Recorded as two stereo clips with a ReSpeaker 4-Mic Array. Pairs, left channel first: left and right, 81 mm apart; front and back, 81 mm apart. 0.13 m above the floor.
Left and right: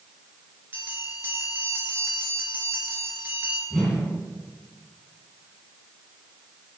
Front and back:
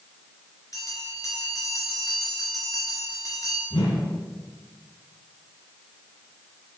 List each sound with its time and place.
0.7 s a bell: 30° right, 2.5 m
3.7 s a whoosh: 5° left, 4 m